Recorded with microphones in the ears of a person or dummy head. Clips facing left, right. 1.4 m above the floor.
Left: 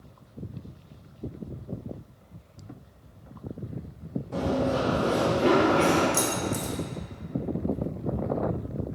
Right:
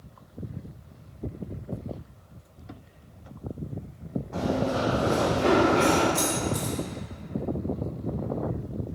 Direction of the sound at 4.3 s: 40° left (ahead or behind).